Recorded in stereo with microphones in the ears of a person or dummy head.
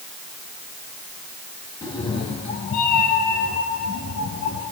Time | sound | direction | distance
1.8 | a cat meowing | 15° left (ahead or behind) | 2.5 m